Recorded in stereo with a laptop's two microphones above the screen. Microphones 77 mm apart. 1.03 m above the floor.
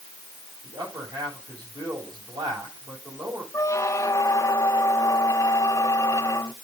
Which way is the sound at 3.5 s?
40° left (ahead or behind).